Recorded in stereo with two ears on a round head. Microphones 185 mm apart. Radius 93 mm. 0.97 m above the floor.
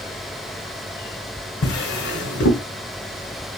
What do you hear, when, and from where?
1.6 s a drawer: 55° left (ahead or behind), 1.4 m